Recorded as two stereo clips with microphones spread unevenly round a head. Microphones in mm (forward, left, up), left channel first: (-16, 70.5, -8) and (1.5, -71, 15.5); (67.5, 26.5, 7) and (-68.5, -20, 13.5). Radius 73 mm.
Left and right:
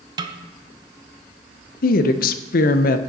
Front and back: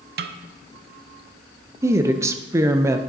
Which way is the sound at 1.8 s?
130° left.